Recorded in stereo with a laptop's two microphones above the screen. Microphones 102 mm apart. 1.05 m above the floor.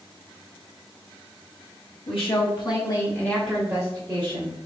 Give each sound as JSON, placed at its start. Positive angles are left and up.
{"t": 2.1, "sound": "a woman speaking", "side_deg": 65, "distance_m": 1.6}